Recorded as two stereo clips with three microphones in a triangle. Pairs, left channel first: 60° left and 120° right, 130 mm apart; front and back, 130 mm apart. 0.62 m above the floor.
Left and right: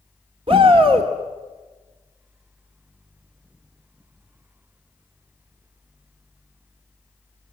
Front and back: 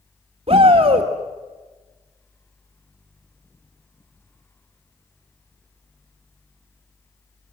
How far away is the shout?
About 1.8 m.